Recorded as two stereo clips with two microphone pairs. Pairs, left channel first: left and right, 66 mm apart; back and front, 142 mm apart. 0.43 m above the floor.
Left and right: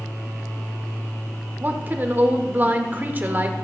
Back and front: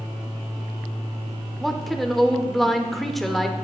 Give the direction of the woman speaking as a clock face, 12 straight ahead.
3 o'clock.